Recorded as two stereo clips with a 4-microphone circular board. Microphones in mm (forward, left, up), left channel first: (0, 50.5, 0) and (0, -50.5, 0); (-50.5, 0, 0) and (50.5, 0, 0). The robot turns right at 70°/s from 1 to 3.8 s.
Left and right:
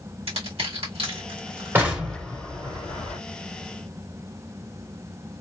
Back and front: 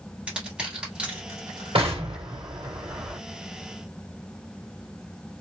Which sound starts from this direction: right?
Crushing, at 0.3 s.